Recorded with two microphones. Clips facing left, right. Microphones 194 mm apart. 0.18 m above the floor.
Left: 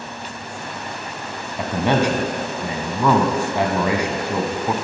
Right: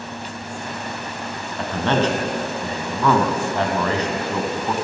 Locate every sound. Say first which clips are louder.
1.6 s a man speaking: left 1 dB; 10° left (ahead or behind), 1.0 m